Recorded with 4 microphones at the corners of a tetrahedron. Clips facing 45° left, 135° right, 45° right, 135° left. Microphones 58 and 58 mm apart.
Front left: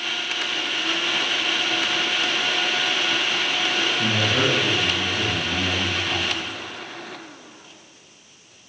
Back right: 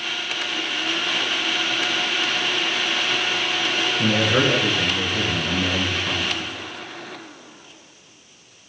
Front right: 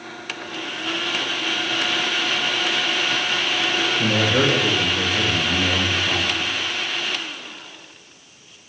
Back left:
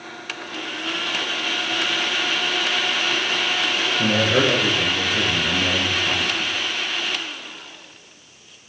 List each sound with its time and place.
4.0 s a man speaking: straight behind, 2.5 m